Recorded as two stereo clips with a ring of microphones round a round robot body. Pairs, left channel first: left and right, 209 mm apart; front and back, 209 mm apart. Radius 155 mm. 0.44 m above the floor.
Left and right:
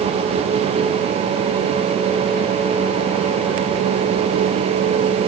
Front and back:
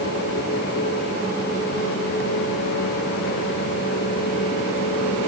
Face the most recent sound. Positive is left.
No sound to turn to.